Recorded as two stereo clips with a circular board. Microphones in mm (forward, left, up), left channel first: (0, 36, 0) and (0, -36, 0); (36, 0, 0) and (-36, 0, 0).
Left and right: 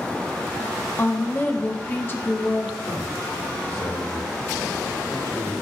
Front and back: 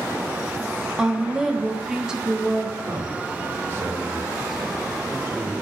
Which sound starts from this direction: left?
A woman speaking, at 1.0 s.